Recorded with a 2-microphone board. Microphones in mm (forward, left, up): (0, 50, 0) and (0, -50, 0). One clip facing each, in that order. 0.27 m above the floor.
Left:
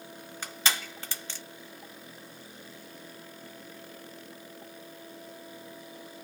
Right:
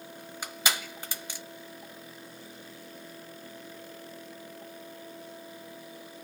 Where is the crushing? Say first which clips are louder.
Even; 15° right (ahead or behind), 1.1 m.